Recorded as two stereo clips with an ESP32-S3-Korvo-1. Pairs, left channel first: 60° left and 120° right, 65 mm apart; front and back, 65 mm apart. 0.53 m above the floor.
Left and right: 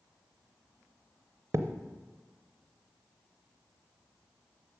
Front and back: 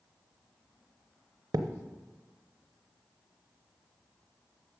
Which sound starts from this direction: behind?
A thud, at 1.5 s.